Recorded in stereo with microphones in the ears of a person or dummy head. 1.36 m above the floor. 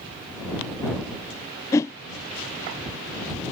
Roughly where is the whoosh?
Centre.